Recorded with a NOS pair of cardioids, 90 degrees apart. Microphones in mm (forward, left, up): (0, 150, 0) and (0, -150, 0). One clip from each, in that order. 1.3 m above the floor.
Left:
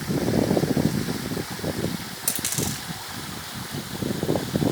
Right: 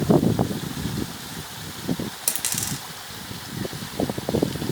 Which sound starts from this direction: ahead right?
A dropped coin, at 2.3 s.